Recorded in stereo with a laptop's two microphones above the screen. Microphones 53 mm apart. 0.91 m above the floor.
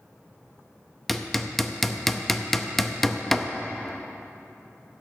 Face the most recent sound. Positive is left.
turn(degrees=5)  # may be behind; listen again after turning